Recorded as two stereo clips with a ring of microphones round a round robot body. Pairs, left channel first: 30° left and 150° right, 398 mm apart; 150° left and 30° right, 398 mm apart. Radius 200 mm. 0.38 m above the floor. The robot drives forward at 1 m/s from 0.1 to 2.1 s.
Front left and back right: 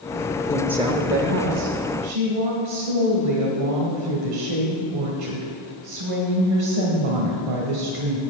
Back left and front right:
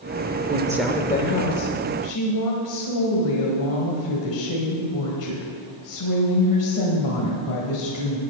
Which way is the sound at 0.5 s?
30° right.